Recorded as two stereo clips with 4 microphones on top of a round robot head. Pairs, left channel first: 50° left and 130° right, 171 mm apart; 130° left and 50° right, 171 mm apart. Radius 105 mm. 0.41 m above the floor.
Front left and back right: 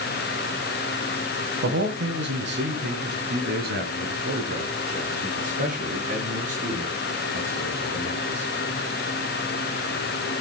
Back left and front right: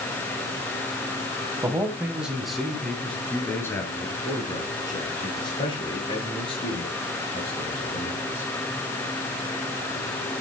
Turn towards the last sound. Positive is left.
turn(degrees=180)